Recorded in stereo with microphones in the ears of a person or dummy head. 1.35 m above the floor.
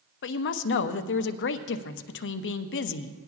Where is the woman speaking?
55° left (ahead or behind), 0.6 m.